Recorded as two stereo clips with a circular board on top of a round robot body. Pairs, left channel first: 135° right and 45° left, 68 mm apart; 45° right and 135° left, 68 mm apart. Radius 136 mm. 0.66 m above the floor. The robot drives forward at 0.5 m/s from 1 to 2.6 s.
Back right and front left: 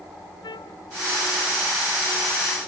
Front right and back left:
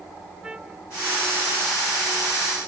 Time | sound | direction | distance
0.4 | a trumpet | 145° right | ?